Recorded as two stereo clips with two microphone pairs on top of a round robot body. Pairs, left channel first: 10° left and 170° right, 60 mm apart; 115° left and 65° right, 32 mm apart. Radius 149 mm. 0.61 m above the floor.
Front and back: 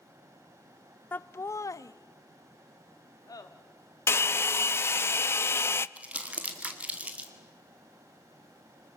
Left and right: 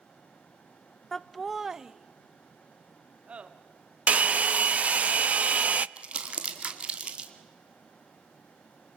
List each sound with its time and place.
1.1 s laughter: 70° left, 0.6 m; by 3.5 s 10° right, 1.5 m
4.1 s a hair dryer: 35° right, 0.5 m
6.0 s crumpling: 115° right, 2 m